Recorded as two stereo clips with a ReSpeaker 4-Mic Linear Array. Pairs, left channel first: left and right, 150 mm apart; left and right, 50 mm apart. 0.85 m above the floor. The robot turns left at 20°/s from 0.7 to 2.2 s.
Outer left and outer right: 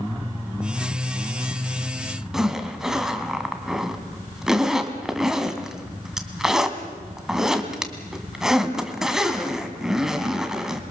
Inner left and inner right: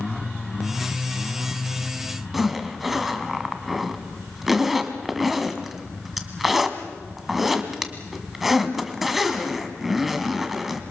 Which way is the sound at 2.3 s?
5° right (ahead or behind).